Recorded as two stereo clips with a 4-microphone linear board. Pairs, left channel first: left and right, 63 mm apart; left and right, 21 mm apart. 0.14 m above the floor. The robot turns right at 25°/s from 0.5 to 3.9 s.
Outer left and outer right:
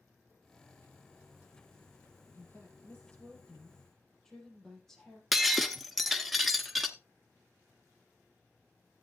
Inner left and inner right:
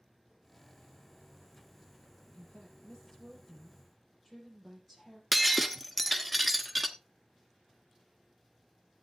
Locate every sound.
2.3 s a woman speaking: 135° left, 4.5 m; by 5.2 s 170° left, 4.5 m
5.3 s breaking glass: centre (ahead or behind), 0.7 m